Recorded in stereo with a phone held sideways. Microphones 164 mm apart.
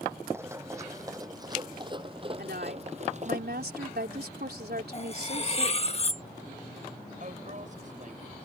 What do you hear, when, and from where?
0.3 s running footsteps: 15° right (ahead or behind); by 3.4 s 50° right (ahead or behind)
2.4 s a woman speaking: 75° right (ahead or behind)
4.9 s cutlery clinking: 40° left (ahead or behind)
7.2 s a woman speaking: 50° right (ahead or behind)